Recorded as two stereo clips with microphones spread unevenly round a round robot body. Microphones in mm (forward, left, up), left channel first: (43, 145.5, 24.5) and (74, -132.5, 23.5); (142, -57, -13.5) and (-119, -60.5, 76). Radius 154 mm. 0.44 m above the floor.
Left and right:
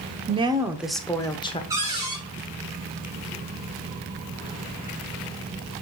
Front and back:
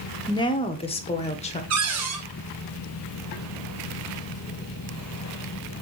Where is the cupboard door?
160° right, 1.8 m.